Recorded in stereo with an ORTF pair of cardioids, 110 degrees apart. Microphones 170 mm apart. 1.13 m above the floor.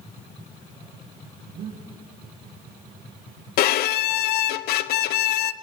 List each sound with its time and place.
1.5 s breathing: 70° right, 5 m
3.6 s a violin: 65° left, 0.5 m